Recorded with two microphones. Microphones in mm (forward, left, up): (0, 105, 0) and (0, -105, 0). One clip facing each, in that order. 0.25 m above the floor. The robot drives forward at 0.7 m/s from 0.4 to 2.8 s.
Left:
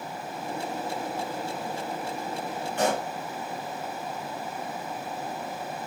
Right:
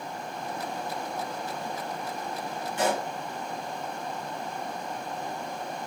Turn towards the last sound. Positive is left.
turn(degrees=65)  # may be behind; listen again after turning